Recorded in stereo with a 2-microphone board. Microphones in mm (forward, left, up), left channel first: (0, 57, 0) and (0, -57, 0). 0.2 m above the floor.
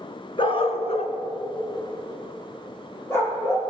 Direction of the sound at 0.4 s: 50° left (ahead or behind).